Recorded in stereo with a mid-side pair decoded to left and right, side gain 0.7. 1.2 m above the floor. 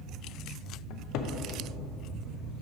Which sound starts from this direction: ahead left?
A cupboard door, at 0.9 s.